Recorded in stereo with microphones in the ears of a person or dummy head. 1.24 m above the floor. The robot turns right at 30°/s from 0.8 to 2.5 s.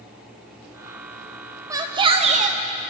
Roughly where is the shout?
Centre.